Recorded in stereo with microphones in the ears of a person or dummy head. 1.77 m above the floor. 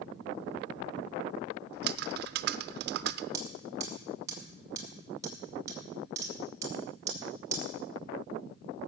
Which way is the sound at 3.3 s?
20° right (ahead or behind).